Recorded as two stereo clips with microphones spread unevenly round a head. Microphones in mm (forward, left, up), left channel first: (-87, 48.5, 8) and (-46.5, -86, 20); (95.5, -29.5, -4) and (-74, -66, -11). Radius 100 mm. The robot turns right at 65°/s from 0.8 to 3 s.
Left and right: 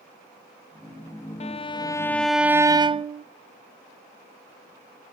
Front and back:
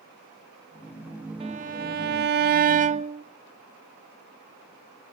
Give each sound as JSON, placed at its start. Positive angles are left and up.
{"t": 1.4, "sound": "a violin", "azimuth_deg": 135, "distance_m": 0.5}